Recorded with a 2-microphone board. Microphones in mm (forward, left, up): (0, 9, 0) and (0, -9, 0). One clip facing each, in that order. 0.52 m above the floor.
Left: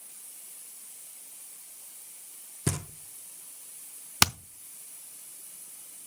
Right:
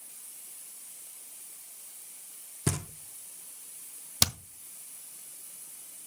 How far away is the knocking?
About 0.8 m.